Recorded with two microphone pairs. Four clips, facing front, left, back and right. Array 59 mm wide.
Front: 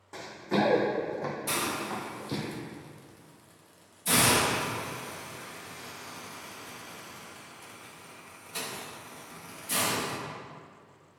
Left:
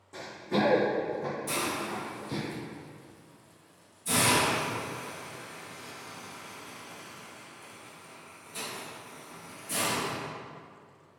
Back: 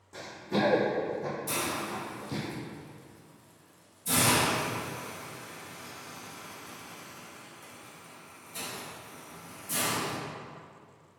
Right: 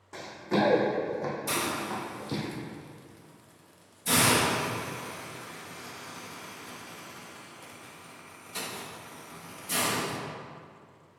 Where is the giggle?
I don't hear a giggle.